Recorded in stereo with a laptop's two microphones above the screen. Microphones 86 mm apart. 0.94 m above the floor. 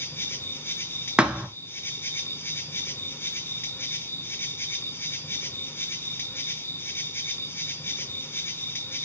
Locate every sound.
0.0 s an insect: 25° left (ahead or behind), 0.7 m
1.2 s a thud: 10° right (ahead or behind), 1.1 m